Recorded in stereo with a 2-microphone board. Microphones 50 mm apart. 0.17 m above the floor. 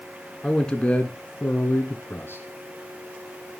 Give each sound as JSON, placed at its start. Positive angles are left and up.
{"t": 0.4, "sound": "a man speaking", "side_deg": 15, "distance_m": 2.0}